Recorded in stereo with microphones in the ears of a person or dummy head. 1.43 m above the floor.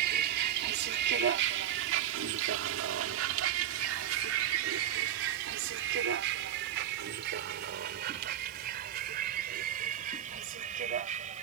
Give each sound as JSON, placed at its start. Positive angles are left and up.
{"t": 0.0, "sound": "a vehicle", "side_deg": -55}